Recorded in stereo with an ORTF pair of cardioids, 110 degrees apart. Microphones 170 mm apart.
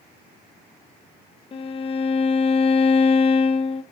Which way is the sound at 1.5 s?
35° left.